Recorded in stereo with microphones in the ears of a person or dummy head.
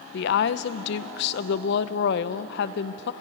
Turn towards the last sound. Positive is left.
turn(degrees=65)  # may be behind; listen again after turning